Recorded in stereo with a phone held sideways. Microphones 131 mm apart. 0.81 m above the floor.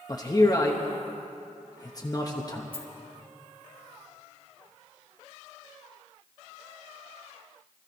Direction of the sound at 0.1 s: 30° left (ahead or behind).